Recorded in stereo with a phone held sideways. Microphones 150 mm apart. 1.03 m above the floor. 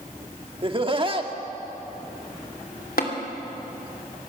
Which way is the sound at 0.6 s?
35° right (ahead or behind).